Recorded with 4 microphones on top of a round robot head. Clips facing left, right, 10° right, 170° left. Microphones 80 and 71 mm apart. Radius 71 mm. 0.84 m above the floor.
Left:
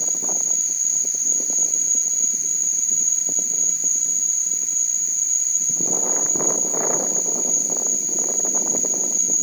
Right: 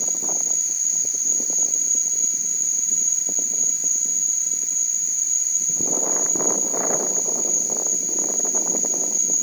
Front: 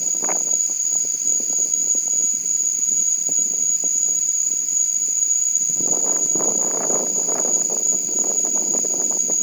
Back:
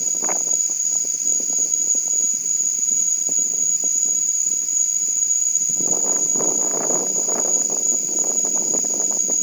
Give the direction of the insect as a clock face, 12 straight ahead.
11 o'clock.